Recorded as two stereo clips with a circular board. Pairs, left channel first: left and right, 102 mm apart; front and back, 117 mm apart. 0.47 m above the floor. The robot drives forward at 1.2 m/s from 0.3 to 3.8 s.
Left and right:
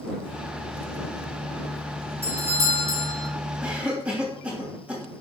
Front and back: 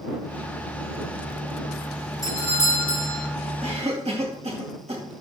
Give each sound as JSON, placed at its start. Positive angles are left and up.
{"t": 2.2, "sound": "a doorbell", "azimuth_deg": -40, "distance_m": 2.5}
{"t": 3.6, "sound": "a cough", "azimuth_deg": -165, "distance_m": 2.5}